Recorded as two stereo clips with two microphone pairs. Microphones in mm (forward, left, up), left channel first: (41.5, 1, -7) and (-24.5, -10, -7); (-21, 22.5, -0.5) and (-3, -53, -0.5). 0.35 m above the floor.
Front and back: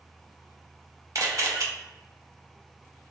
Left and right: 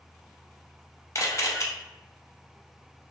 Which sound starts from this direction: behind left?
A camera shutter, at 1.1 s.